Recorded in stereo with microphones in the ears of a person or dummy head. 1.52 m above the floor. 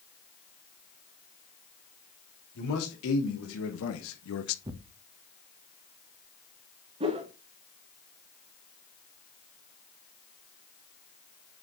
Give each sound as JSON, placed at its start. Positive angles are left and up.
{"t": 2.5, "sound": "a man speaking", "side_deg": 80, "distance_m": 2.5}
{"t": 4.7, "sound": "tearing paper", "side_deg": -20, "distance_m": 0.8}
{"t": 7.0, "sound": "a whoosh", "side_deg": -30, "distance_m": 1.2}